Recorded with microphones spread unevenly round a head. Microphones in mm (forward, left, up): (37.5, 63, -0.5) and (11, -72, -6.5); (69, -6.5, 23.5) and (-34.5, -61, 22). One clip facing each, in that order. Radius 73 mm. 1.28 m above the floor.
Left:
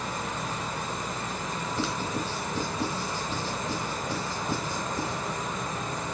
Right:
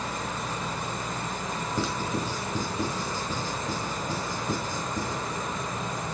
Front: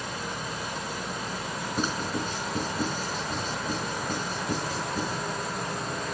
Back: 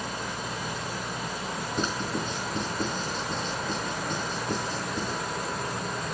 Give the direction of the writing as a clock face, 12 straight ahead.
2 o'clock.